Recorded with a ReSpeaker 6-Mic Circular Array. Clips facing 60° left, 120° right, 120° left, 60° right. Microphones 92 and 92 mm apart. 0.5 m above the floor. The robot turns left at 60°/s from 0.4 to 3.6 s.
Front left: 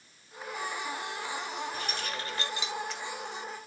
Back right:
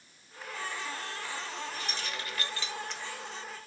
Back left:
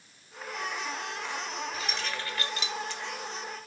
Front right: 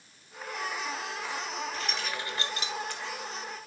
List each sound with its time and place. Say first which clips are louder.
1.7 s keys jangling: front left 2 dB, even; 40° left, 1.2 m; by 3.0 s 35° right, 1.2 m